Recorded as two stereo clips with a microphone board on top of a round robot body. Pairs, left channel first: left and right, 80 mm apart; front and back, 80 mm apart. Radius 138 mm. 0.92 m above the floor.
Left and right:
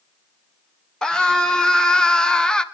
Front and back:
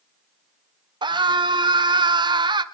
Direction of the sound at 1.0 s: 170° left.